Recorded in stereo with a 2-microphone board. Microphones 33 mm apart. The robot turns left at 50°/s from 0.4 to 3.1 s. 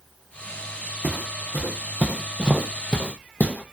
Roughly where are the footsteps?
Right.